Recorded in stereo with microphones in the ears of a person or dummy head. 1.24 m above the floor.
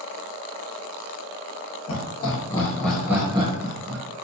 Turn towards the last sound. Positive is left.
turn(degrees=-55)  # may be behind; listen again after turning